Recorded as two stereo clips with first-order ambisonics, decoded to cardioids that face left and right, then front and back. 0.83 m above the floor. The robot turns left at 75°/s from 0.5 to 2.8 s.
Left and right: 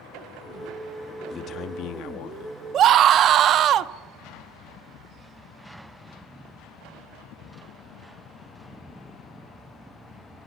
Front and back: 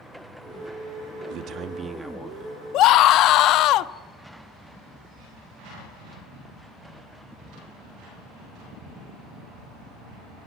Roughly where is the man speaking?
Behind left.